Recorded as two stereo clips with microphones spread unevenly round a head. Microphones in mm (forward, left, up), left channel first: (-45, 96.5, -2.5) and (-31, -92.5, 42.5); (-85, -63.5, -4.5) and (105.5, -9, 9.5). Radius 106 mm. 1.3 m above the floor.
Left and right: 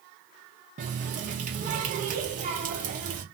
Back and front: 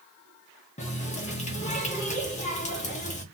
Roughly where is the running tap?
Right.